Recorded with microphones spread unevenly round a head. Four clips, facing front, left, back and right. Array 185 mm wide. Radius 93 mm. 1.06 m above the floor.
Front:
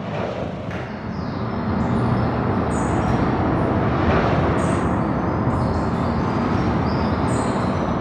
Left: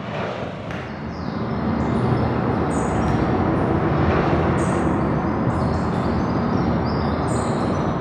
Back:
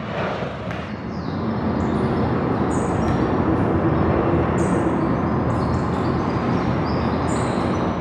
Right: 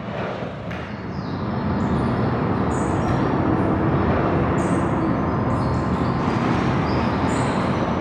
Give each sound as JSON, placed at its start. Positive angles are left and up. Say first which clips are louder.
{"t": 0.7, "sound": "a bird", "louder": "left 1 dB, even", "azimuth_deg": 145, "distance_m": 1.6}